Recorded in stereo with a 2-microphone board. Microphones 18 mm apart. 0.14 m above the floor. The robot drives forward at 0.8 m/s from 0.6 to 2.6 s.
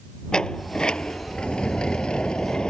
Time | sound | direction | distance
0.3 | a sliding door | 50° left (ahead or behind) | ?